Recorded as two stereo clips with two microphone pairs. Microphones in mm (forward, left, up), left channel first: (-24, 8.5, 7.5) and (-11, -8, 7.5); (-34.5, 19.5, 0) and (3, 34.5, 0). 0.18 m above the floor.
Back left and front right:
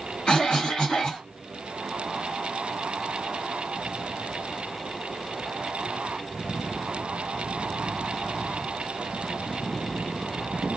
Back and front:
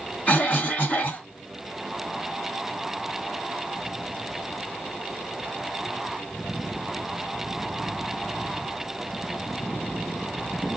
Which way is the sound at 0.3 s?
170° left.